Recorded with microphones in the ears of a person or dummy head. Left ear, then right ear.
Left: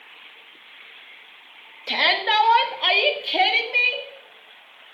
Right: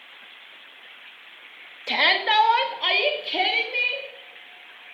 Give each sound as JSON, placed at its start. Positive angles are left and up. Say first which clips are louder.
{"t": 1.9, "sound": "a shout", "louder": "even", "side_deg": -5, "distance_m": 1.6}